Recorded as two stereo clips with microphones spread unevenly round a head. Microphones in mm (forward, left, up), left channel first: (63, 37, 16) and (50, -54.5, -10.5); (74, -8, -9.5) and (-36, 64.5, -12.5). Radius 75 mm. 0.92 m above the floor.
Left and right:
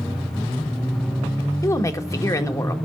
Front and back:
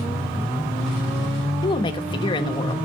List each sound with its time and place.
1.6 s a woman speaking: 20° left, 1.3 m